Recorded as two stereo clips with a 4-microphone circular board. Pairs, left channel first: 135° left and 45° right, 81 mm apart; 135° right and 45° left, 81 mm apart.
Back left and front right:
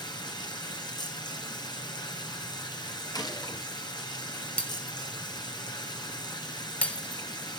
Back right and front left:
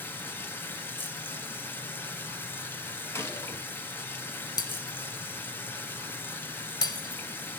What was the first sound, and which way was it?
Running water, 160° left.